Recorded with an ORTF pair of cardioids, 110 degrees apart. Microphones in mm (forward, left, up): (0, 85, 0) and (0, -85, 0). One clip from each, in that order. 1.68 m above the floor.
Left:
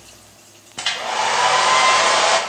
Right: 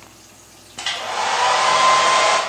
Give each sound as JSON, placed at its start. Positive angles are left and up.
{"t": 0.8, "sound": "a hair dryer", "azimuth_deg": 15, "distance_m": 0.6}